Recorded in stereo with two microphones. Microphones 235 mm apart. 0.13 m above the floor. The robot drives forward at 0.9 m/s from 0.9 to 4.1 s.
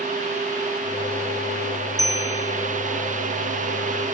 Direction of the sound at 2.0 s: 15° right (ahead or behind).